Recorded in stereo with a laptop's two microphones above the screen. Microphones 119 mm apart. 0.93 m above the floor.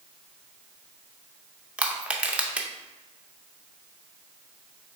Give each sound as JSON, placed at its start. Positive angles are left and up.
{"t": 1.8, "sound": "crushing", "side_deg": -10, "distance_m": 0.5}